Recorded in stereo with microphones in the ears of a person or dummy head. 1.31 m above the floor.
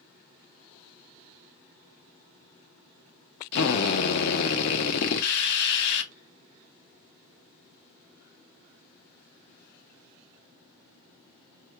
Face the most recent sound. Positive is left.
turn(degrees=65)  # may be behind; listen again after turning